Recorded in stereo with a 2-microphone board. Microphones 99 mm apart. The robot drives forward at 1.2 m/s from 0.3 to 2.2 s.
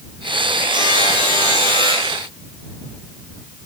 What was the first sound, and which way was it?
A buzzer, 50° right (ahead or behind).